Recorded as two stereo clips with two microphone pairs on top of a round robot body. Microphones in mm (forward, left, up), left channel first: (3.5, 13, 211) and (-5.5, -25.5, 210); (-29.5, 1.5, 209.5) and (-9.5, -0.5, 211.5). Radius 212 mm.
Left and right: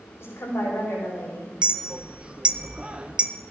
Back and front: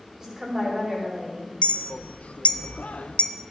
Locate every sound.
0.2 s a woman speaking: 60° left, 5 m
1.6 s a clink: 170° right, 0.6 m